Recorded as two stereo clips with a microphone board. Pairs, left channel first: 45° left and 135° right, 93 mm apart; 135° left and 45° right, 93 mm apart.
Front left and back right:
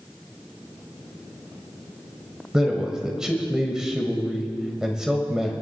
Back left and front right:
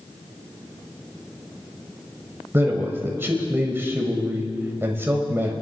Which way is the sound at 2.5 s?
60° right.